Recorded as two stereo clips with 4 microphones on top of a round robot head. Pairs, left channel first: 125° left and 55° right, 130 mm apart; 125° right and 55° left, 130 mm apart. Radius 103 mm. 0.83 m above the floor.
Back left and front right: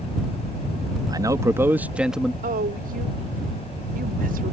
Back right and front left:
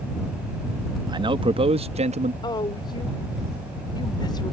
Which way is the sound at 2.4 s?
65° right.